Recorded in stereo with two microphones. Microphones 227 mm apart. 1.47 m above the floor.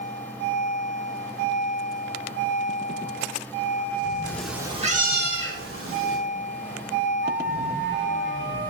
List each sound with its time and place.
4.2 s a cat meowing: 15° left (ahead or behind), 1.2 m; by 6.2 s 70° right (ahead or behind), 2.5 m
7.2 s a flute: 55° right (ahead or behind), 1.6 m